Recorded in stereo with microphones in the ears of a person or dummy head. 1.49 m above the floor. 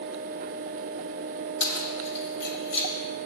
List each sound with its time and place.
1.6 s keys jangling: 80° left, 1.5 m